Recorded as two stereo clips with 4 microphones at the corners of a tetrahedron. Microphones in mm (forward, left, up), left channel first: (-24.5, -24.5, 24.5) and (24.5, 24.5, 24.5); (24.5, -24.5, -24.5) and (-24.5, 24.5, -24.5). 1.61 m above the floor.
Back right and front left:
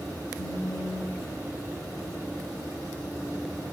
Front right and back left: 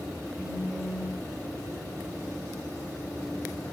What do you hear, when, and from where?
0.4 s a phone buzzing: 145° right, 0.6 m